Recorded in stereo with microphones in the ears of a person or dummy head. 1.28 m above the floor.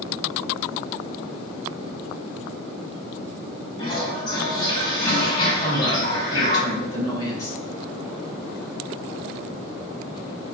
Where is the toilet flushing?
25° left (ahead or behind), 5.5 m.